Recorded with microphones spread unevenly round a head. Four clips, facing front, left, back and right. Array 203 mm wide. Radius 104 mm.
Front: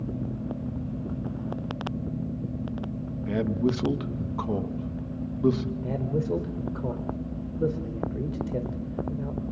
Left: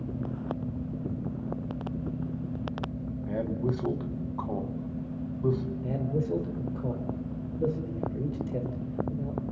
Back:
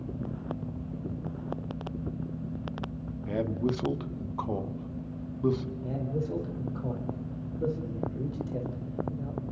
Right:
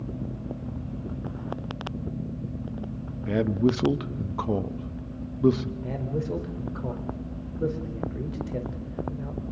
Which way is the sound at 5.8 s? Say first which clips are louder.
Even, front 5 dB; 15° left.